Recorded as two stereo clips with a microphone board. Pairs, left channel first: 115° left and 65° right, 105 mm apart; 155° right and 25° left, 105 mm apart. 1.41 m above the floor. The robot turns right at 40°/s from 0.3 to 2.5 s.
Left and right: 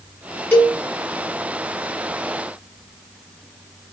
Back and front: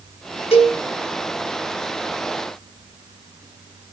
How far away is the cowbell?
About 0.9 m.